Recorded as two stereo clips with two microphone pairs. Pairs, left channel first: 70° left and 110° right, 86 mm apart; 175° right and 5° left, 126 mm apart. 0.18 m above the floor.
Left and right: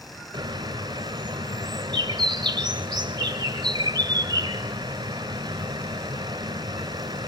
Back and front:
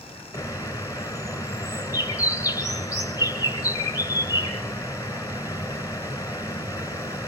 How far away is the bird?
About 2 m.